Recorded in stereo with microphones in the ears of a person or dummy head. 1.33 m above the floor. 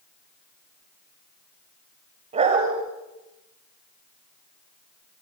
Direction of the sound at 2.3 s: 35° right (ahead or behind).